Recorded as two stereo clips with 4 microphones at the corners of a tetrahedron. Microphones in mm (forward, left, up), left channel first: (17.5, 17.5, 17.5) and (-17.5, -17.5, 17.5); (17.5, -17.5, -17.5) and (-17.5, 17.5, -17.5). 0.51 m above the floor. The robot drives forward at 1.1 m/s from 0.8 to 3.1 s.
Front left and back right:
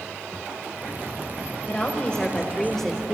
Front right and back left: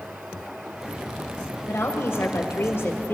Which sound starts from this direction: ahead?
A woman speaking, at 1.7 s.